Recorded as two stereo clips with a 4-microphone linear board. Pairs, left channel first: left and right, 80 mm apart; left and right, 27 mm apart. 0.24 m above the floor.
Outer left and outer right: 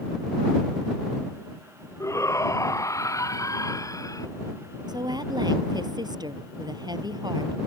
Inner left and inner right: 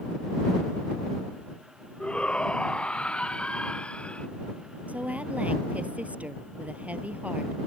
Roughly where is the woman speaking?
Right.